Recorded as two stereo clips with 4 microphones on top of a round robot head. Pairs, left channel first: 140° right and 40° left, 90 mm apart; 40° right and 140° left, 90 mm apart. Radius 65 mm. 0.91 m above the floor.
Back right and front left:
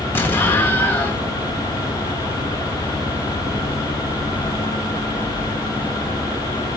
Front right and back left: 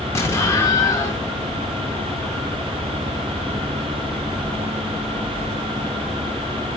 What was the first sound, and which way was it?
An explosion, 80° right.